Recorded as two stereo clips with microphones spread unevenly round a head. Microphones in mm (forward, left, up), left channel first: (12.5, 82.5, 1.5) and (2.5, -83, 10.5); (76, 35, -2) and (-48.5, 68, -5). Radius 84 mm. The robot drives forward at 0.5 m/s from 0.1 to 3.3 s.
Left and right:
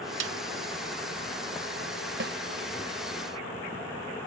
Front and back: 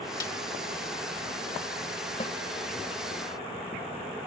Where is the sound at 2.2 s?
75° right.